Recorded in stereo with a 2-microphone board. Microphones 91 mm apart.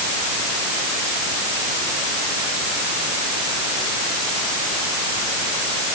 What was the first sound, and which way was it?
Only background noise.